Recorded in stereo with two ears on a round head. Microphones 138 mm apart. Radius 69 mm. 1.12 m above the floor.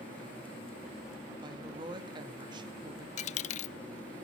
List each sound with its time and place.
1.4 s a woman speaking: 30° right (ahead or behind), 2 m
3.2 s a dropped coin: 45° left (ahead or behind), 0.5 m